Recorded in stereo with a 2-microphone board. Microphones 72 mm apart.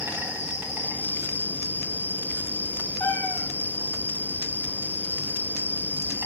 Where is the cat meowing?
30° left (ahead or behind), 1.5 m.